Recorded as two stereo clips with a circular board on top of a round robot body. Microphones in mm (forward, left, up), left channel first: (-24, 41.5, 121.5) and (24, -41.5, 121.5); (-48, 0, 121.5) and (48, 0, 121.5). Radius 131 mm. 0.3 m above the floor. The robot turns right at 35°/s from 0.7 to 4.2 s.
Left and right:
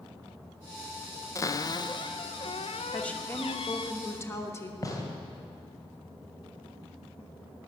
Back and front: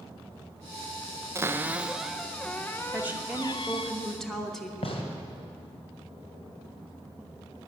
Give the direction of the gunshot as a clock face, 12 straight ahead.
6 o'clock.